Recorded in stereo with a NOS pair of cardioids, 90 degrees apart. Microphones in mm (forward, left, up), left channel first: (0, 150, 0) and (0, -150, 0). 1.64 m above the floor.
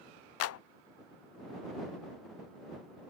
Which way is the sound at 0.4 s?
55° left.